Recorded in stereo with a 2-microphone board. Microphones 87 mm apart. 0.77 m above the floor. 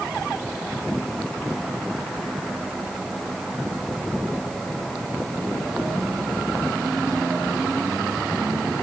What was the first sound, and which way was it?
Only background noise.